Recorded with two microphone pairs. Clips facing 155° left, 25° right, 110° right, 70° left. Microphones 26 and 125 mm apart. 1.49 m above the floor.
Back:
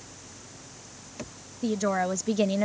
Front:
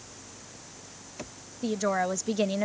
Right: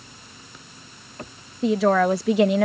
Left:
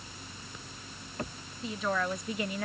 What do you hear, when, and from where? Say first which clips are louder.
1.6 s a woman speaking: back 1 dB, right 14 dB; 110° right; by 2.6 s 115° right